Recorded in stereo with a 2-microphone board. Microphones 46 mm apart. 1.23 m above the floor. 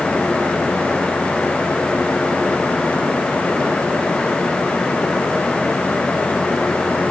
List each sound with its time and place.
Only background noise.